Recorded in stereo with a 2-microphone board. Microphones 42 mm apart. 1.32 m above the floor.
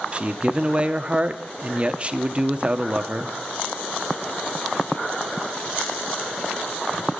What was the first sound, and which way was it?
A man speaking, 30° right (ahead or behind).